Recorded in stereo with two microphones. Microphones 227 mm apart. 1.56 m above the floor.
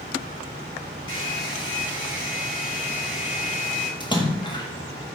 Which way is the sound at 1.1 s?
65° left (ahead or behind).